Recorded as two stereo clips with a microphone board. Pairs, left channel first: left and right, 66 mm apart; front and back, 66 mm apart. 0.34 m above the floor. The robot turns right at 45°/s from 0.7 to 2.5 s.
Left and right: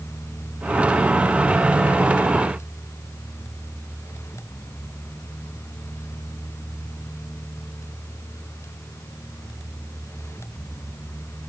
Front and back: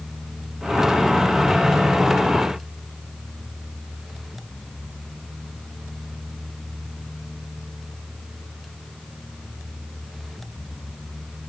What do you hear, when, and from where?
Only background noise.